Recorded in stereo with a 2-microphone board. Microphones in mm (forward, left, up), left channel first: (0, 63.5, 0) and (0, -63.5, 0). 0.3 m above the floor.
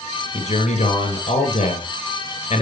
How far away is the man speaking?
About 3.5 m.